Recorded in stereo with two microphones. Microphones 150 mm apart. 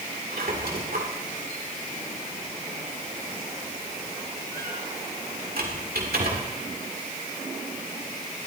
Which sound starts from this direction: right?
A squeak, at 0.3 s.